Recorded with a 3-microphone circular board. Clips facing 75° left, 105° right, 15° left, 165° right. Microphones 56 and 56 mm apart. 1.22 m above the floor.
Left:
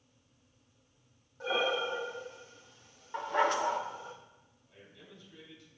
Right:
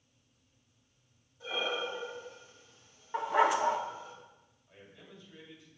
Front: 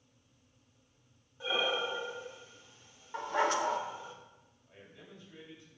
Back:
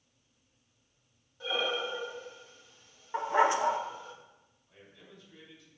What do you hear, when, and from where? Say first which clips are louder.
1.4 s breathing: left 4 dB, even; 95° left, 0.9 m
3.1 s a dog barking: right 2 dB, back 4 dB; 170° right, 0.6 m
4.7 s a man speaking: right 1 dB, front 1 dB; 30° right, 3 m